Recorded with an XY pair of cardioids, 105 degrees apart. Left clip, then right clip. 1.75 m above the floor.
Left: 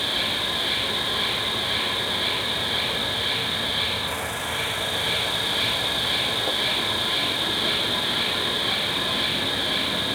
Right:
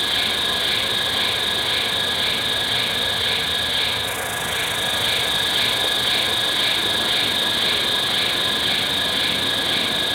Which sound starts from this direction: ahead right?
An insect, at 0.0 s.